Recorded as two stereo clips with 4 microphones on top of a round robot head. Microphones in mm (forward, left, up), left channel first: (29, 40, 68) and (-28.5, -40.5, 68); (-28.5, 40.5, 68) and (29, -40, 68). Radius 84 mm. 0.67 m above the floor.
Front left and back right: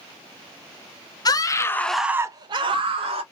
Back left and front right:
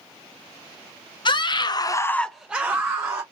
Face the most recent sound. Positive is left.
turn(degrees=-115)